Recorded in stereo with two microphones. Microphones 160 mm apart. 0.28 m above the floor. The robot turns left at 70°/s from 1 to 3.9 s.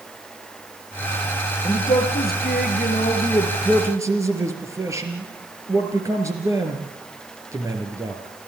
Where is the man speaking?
140° left, 4.5 m; by 8.2 s 20° right, 4.5 m.